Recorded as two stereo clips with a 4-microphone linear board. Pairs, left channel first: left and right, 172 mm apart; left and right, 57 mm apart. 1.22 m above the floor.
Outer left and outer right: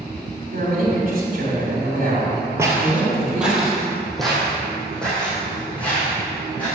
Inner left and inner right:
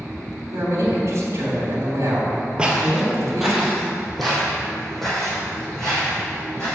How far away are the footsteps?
About 1.4 m.